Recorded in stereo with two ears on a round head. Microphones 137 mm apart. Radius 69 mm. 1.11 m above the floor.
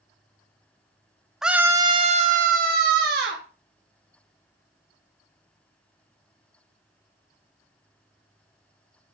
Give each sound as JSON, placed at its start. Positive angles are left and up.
{"t": 1.4, "sound": "a scream", "side_deg": -5, "distance_m": 0.7}